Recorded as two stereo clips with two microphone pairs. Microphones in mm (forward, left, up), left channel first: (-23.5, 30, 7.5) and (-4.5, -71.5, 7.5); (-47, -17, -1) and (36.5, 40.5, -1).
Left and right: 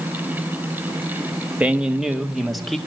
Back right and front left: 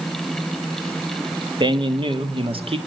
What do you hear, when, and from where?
1.6 s a man speaking: 5° right, 1.6 m; by 2.8 s 15° left, 2.5 m